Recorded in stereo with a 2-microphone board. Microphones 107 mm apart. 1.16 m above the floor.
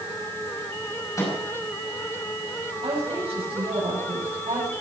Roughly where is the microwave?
Left.